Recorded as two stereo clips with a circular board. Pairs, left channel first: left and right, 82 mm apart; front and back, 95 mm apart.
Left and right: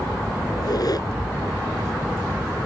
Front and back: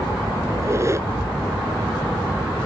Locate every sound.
0.5 s a squeak: 125° left